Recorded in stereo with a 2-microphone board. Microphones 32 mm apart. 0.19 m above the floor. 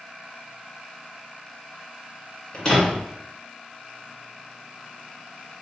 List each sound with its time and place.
2.5 s a door slam: 30° left (ahead or behind), 1.8 m